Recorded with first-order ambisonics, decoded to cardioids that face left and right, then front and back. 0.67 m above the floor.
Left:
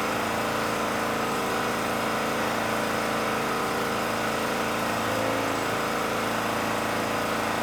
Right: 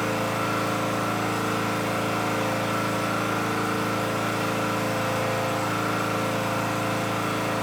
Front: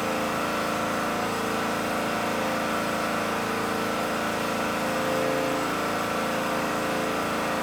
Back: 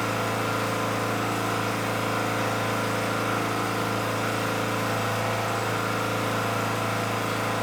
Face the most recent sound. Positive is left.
turn(degrees=120)